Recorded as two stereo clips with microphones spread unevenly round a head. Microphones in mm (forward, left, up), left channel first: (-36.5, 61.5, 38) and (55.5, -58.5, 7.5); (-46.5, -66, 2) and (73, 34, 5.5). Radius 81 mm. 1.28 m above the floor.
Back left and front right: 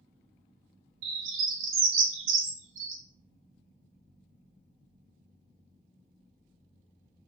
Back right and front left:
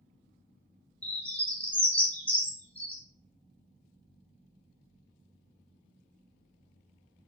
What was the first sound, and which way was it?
A bird, 60° right.